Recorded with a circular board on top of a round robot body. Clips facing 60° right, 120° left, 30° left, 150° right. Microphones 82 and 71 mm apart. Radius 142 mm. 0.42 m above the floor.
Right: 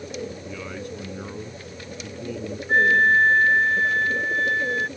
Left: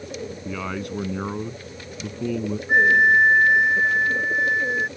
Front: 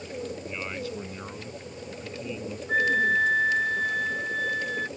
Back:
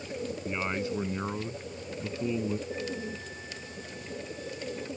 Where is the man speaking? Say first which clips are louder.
Left 4 dB, back 2 dB; 140° left.